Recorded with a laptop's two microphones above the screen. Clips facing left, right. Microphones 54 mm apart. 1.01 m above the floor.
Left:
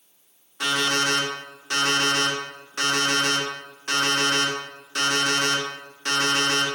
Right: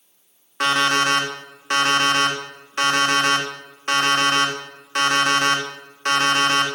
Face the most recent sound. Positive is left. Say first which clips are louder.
# right 5 dB
turn(degrees=-50)  # may be behind; listen again after turning